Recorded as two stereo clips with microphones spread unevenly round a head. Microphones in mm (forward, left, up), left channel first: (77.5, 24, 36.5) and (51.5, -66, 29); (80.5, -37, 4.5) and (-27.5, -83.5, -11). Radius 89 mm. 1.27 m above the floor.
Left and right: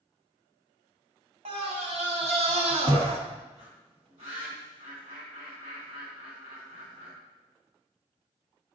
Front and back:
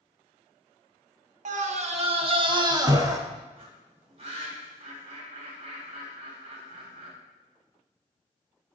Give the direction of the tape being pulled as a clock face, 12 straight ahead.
No tape being pulled in this recording.